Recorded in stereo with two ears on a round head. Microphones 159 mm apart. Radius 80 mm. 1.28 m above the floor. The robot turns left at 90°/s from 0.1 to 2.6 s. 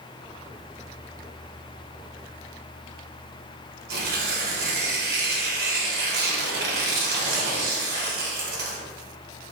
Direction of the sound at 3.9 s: 60° right (ahead or behind).